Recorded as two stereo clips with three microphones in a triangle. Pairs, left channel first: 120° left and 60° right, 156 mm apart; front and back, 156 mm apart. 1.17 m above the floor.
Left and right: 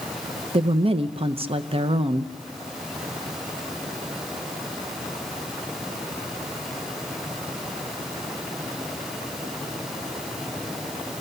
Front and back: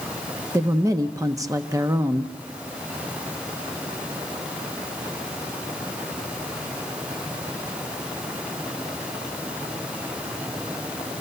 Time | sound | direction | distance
0.5 | a woman speaking | 115° right | 0.6 m